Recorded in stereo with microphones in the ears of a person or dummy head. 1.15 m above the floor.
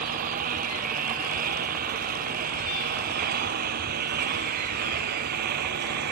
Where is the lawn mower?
50° right (ahead or behind); by 6.1 s 60° right (ahead or behind).